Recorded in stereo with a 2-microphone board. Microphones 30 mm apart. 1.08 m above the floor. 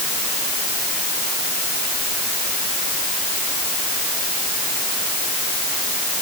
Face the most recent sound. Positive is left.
No sound to turn to.